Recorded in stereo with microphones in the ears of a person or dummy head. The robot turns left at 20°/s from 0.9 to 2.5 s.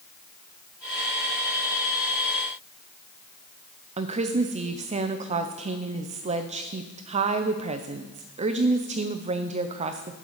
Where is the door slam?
No door slam in this recording.